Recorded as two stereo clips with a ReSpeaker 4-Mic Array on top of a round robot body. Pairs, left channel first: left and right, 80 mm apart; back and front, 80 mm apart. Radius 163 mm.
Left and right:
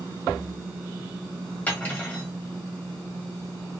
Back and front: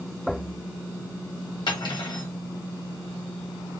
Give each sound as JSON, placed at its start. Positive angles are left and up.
{"t": 1.7, "sound": "cutlery clinking", "azimuth_deg": 160, "distance_m": 1.4}